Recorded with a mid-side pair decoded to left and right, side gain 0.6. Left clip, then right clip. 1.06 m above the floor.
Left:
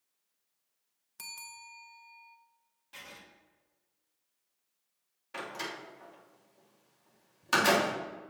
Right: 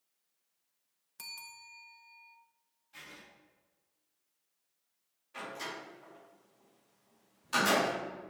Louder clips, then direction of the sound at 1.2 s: Left 1 dB; 10° left.